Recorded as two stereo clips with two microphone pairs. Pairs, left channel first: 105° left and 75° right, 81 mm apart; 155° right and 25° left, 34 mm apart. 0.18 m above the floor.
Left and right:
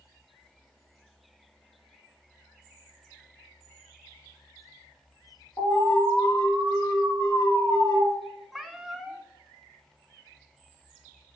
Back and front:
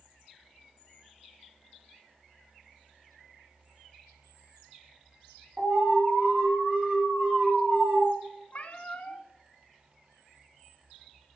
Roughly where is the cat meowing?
Behind.